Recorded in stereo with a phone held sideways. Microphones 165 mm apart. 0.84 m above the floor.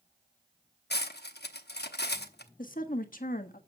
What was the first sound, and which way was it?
Cutlery clinking, 85° left.